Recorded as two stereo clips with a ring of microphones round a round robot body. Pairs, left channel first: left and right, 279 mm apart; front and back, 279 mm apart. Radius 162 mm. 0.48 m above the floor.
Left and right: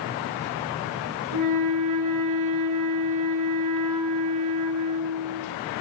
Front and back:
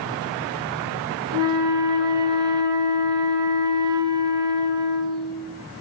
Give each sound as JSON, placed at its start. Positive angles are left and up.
{"t": 1.3, "sound": "a flute", "azimuth_deg": -105, "distance_m": 2.5}